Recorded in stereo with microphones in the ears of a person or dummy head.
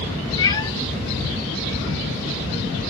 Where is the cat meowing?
20° left (ahead or behind), 1.3 m.